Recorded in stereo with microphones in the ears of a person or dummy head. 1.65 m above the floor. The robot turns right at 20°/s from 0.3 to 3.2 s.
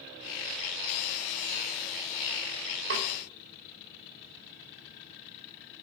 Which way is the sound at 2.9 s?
70° right (ahead or behind).